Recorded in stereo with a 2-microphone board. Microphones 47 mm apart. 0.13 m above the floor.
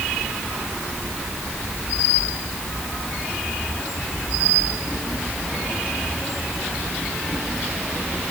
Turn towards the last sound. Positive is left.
No sound to turn to.